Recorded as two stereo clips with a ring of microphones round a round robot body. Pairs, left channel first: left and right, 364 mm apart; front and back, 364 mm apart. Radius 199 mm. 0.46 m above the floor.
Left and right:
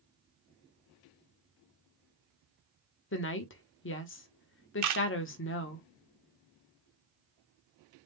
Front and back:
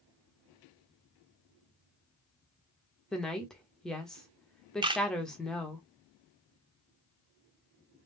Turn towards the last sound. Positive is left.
turn(degrees=-105)